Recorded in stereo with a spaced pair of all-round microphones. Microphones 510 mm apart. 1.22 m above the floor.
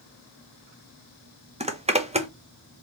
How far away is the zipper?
About 0.6 m.